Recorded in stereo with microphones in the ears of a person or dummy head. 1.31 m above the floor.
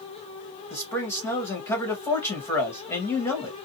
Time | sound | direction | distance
0.7 | a man speaking | 10° left (ahead or behind) | 1.4 m